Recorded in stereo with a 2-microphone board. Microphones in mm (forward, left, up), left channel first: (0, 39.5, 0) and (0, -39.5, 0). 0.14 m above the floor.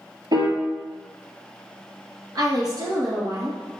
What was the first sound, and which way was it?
A piano, 60° right (ahead or behind).